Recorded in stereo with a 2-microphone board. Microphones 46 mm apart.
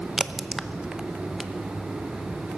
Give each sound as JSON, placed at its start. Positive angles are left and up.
{"t": 0.2, "sound": "a crack", "side_deg": -10, "distance_m": 0.6}